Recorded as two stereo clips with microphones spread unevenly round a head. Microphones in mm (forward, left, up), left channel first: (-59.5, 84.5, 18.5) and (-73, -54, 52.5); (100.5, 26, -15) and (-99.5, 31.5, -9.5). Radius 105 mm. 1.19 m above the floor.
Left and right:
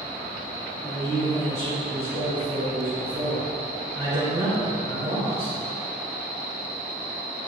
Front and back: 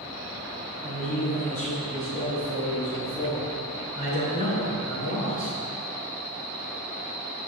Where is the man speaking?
60° right, 3 m; by 5.6 s 50° right, 7 m.